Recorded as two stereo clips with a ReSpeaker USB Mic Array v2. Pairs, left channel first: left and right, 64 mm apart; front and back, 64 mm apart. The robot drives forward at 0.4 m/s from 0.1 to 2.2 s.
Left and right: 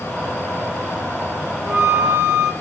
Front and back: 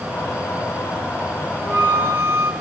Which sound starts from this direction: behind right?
A flute, at 1.6 s.